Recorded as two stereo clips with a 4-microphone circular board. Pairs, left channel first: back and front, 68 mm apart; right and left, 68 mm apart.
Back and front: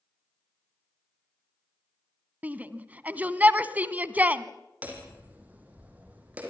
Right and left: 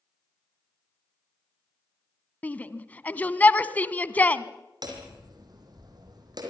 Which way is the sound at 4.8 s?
70° left.